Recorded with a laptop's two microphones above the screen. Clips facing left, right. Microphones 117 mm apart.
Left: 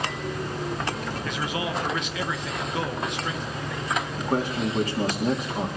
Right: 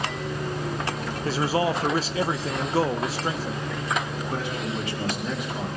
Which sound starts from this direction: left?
A man speaking, at 4.2 s.